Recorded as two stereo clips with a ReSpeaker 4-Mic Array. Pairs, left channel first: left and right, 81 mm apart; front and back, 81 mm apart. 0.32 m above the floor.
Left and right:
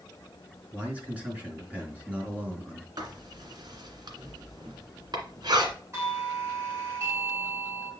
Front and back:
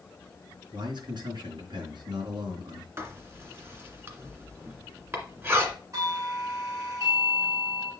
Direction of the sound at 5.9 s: 145° right.